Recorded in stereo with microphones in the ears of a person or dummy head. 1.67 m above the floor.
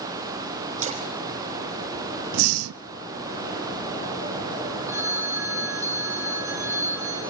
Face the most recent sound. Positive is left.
turn(degrees=-15)  # may be behind; listen again after turning